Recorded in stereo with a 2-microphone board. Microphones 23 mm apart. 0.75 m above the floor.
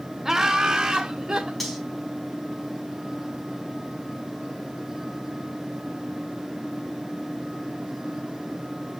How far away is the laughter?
About 0.7 m.